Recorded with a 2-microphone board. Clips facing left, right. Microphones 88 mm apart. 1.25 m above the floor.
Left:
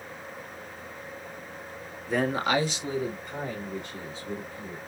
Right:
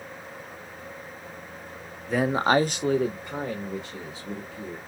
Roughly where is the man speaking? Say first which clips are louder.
Right 4 dB; centre.